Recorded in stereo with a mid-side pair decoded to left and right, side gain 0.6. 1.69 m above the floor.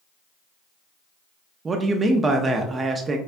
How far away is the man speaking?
About 0.6 m.